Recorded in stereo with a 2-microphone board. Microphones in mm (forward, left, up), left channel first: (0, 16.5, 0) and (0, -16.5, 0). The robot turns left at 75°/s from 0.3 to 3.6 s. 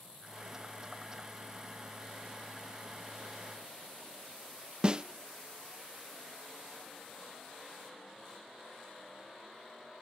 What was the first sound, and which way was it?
A snare drum, 30° right (ahead or behind).